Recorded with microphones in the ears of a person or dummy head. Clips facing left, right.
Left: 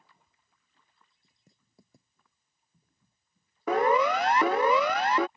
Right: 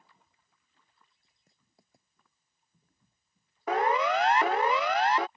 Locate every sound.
1.2 s writing: 90° left
3.7 s a siren: 75° left (ahead or behind); by 5.3 s 70° left (ahead or behind)